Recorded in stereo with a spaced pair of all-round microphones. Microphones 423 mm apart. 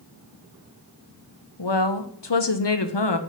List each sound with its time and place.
1.6 s a woman speaking: 75° left (ahead or behind), 0.9 m